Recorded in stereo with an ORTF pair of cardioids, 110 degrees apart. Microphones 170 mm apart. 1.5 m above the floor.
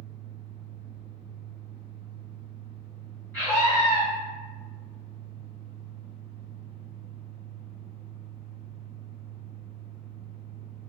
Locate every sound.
0.0 s a fan: 65° right, 0.7 m
3.3 s a scream: 10° left, 1.9 m